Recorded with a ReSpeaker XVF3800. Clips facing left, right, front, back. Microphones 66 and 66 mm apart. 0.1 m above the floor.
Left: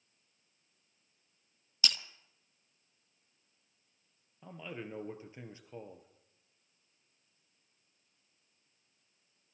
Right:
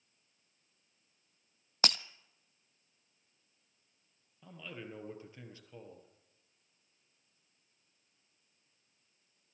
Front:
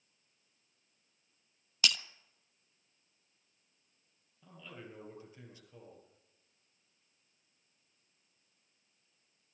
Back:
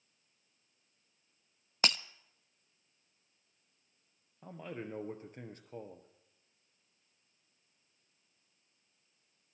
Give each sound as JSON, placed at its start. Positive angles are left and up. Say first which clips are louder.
{"t": 1.8, "sound": "breaking glass", "louder": "right 4 dB, back 1 dB", "azimuth_deg": -125, "distance_m": 0.5}
{"t": 4.4, "sound": "a man speaking", "louder": "left 3 dB, back 7 dB", "azimuth_deg": 155, "distance_m": 2.5}